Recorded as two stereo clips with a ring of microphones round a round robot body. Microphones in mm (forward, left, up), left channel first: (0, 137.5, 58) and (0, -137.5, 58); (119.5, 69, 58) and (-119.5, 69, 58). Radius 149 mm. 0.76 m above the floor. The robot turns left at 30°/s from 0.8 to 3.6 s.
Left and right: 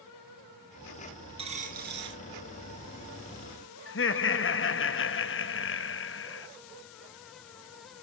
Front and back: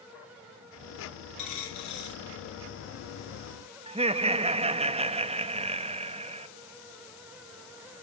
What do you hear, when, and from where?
1.4 s a dropped coin: 20° right, 3 m; by 2.2 s 45° right, 3 m
3.9 s laughter: 120° left, 1.0 m